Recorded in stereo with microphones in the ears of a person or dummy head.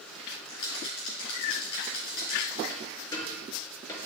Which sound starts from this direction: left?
A rattle, at 0.5 s.